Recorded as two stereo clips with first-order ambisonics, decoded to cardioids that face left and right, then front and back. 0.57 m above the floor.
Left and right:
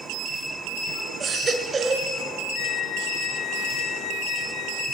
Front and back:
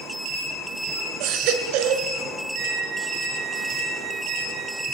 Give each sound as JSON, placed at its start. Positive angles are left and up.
{"t": 1.2, "sound": "a baby crying", "azimuth_deg": -165, "distance_m": 1.7}
{"t": 2.5, "sound": "a flute", "azimuth_deg": 130, "distance_m": 0.8}